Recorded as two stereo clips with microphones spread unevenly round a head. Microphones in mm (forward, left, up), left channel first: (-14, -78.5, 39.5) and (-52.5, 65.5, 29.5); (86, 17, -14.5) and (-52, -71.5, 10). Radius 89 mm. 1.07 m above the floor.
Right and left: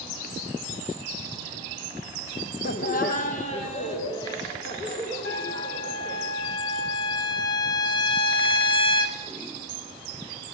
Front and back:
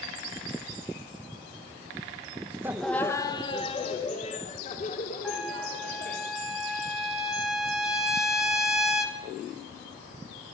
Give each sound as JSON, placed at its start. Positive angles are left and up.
{"t": 2.6, "sound": "laughter", "azimuth_deg": -70, "distance_m": 1.0}
{"t": 5.2, "sound": "a trumpet", "azimuth_deg": -60, "distance_m": 4.0}